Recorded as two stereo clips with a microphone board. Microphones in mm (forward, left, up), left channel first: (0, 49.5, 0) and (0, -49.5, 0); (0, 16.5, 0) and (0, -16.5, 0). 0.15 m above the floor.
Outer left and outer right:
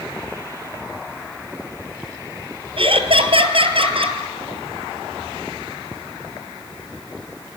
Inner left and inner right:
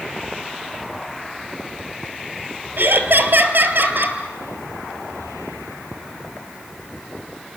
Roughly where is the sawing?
I don't hear sawing.